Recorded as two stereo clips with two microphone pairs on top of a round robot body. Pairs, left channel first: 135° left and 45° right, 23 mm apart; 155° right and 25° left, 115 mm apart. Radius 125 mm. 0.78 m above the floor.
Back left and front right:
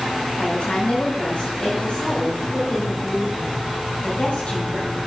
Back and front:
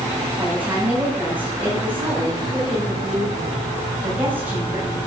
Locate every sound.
0.4 s a woman speaking: 105° left, 5.5 m